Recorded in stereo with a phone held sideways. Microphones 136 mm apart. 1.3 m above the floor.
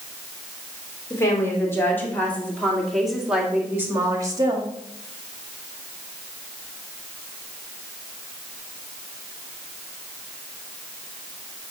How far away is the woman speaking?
About 3.5 m.